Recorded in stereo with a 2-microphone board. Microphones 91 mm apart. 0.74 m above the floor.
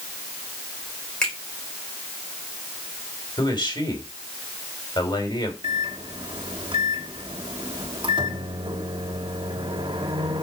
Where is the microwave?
70° right (ahead or behind), 1.1 m.